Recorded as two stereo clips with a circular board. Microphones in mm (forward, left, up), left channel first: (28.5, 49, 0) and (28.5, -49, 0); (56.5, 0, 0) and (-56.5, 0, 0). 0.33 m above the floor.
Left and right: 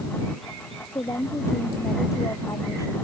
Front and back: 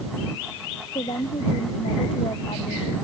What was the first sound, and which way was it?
A woman speaking, 35° left.